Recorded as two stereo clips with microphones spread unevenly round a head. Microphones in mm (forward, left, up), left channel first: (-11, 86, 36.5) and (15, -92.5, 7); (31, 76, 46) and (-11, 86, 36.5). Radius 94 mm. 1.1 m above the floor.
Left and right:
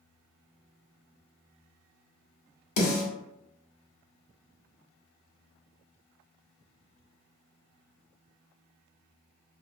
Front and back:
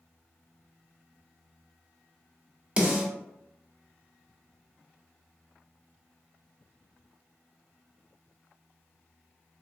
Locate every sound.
2.8 s a snare drum: 100° left, 1.4 m